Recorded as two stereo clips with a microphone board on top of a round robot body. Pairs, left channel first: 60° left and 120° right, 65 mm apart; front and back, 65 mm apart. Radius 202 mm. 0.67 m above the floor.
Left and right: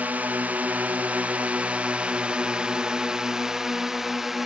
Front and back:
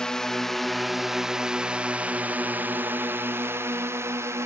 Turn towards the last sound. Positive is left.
turn(degrees=155)